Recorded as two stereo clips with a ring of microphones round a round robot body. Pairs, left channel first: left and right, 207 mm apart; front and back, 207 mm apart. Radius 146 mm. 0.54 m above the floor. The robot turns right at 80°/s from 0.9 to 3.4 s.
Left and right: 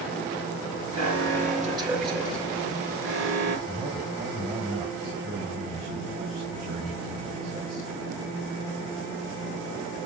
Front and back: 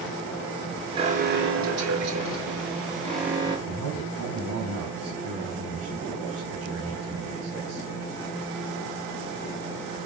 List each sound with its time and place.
0.9 s an alarm: 110° left, 5.5 m; by 3.6 s 50° right, 5.5 m
3.7 s a man speaking: 150° right, 3.5 m